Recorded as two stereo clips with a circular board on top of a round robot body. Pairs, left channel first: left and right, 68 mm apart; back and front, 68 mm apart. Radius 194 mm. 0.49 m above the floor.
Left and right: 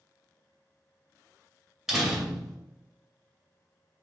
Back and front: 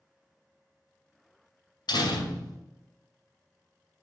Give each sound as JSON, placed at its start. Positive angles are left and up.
{"t": 1.9, "sound": "a door slam", "azimuth_deg": -175, "distance_m": 2.5}